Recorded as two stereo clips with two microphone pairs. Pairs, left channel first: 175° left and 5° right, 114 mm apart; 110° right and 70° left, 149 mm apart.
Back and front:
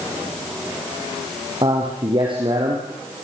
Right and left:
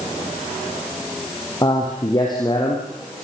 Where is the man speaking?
50° right, 4 m.